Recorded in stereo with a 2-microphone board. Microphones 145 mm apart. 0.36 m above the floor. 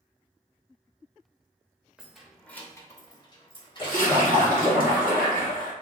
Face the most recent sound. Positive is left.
turn(degrees=75)  # may be behind; listen again after turning